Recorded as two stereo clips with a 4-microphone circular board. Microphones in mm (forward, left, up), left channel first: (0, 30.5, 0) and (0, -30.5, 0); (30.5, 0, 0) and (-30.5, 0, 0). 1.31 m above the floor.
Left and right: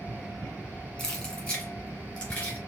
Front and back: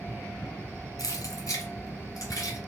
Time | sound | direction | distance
1.0 | keys jangling | 20° left | 1.7 m